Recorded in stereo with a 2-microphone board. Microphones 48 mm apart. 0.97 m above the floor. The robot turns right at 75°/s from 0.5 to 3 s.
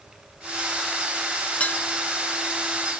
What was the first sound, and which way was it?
Dishes clattering, 25° left (ahead or behind).